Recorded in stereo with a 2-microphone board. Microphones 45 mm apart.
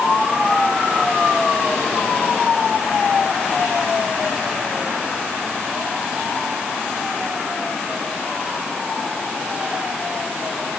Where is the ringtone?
I don't hear a ringtone.